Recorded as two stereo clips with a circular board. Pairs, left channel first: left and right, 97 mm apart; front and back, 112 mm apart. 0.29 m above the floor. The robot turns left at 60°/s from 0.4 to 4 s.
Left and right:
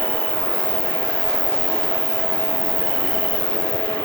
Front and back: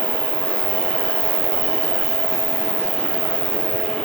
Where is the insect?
120° right; by 4.1 s 25° left.